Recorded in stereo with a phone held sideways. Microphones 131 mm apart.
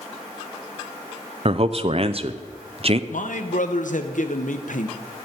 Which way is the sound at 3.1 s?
75° left (ahead or behind).